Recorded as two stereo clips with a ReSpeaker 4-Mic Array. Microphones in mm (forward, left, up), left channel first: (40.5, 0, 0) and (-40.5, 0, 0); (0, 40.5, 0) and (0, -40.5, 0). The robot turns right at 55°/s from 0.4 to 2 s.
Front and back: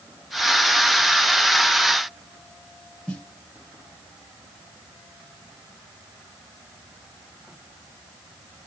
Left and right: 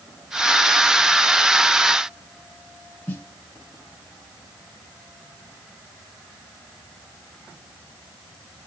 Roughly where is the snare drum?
Ahead left.